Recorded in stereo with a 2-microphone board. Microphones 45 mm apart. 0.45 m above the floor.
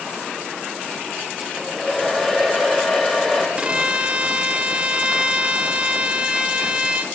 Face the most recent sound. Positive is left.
turn(degrees=-20)  # may be behind; listen again after turning